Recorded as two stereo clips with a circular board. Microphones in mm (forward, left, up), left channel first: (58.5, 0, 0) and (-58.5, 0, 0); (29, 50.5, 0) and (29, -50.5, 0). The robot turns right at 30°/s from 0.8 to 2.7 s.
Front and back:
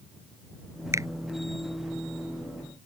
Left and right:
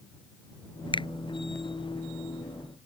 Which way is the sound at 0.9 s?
115° left.